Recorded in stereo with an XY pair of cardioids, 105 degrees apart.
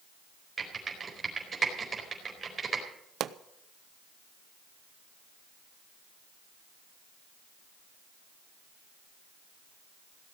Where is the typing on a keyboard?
30° right, 4 m.